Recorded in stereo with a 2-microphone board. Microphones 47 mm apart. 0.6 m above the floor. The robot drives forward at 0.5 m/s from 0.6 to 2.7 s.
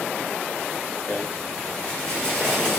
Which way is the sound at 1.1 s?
35° left (ahead or behind).